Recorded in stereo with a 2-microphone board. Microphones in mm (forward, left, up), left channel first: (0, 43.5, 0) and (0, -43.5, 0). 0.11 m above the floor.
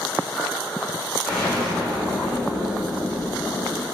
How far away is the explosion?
About 5 m.